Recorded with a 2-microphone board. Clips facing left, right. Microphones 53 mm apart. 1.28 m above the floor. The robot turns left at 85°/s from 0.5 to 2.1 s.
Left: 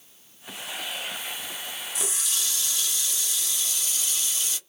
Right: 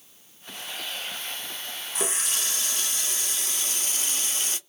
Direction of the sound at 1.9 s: 35° right (ahead or behind).